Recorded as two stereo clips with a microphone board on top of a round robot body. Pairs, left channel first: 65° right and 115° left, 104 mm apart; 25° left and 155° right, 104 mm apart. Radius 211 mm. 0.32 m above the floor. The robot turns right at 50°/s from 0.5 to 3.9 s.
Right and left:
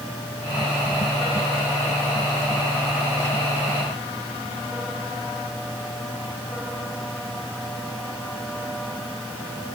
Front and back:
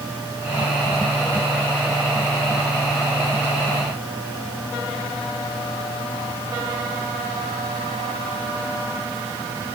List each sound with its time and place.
Only background noise.